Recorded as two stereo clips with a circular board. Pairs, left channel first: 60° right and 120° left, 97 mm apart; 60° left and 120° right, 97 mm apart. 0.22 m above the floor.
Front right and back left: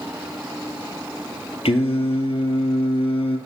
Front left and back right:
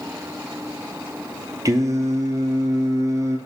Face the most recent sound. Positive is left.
turn(degrees=-65)